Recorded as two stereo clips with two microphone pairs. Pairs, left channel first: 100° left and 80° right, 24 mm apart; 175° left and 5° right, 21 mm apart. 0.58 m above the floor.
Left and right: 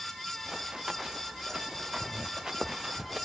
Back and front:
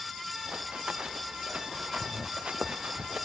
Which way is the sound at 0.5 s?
25° right.